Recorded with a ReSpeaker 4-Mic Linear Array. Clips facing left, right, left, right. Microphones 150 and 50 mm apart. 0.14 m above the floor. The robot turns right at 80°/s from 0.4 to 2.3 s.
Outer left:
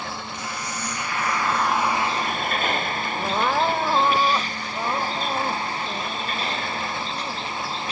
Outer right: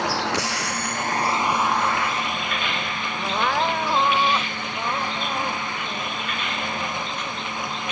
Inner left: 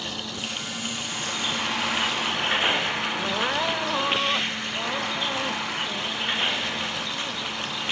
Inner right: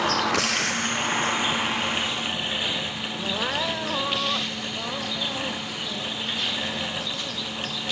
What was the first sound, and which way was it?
A vehicle, 80° right.